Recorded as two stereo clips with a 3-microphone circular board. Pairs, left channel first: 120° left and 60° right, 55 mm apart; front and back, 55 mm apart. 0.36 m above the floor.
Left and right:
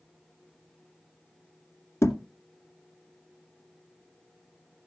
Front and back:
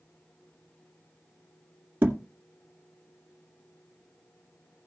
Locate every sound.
2.0 s a thud: 130° left, 1.9 m